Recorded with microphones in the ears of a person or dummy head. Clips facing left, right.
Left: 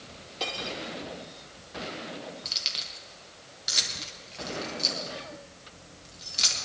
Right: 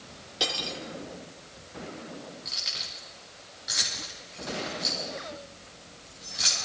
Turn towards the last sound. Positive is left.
turn(degrees=45)  # may be behind; listen again after turning